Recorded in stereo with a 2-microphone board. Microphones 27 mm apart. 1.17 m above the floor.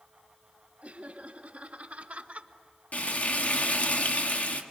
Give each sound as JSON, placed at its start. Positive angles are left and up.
{"t": 0.8, "sound": "laughter", "side_deg": -65, "distance_m": 3.5}
{"t": 2.9, "sound": "frying", "side_deg": 65, "distance_m": 1.6}